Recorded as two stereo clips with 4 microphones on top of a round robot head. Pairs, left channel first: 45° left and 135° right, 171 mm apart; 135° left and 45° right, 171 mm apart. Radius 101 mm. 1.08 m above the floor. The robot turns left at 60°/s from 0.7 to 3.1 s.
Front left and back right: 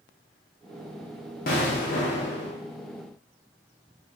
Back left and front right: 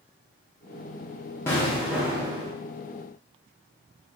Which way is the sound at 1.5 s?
60° left.